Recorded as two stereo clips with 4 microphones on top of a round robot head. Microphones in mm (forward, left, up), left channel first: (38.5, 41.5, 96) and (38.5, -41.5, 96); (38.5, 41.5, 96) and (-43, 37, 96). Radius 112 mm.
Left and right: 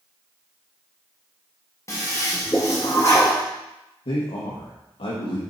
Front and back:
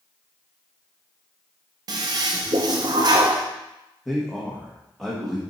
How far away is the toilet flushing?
About 0.5 m.